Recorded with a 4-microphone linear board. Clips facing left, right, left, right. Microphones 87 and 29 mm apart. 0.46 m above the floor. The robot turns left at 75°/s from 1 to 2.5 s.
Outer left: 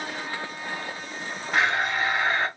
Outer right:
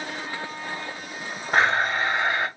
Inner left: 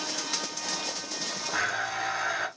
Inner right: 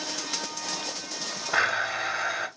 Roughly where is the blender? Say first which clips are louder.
Outer right 3 dB, inner right 5 dB; right.